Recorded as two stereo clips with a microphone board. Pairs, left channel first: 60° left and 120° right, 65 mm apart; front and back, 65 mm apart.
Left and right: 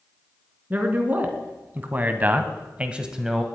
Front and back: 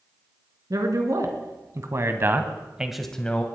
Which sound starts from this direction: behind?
A man speaking, at 0.7 s.